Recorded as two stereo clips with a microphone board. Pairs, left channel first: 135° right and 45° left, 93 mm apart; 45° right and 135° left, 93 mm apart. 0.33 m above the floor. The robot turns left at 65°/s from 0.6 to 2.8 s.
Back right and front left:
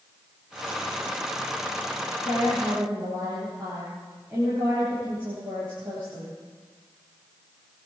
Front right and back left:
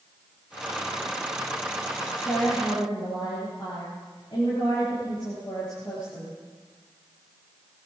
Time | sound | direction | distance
2.2 | a woman speaking | 15° left | 8 m